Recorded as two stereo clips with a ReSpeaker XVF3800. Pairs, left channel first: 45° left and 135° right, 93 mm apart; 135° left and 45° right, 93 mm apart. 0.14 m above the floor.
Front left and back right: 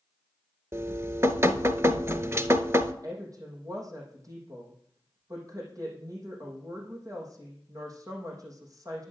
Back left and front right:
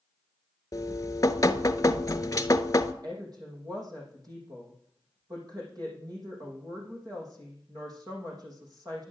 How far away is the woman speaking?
About 5.5 m.